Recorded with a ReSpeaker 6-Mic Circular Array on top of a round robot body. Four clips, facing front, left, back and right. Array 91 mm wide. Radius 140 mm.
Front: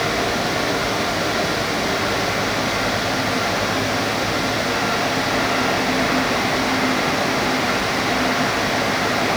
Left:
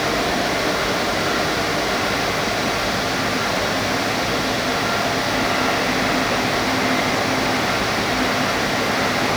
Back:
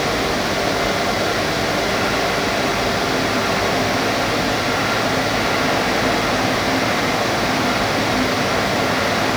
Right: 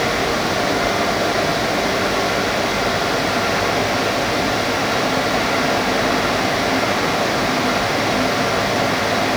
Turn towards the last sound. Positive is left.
No sound to turn to.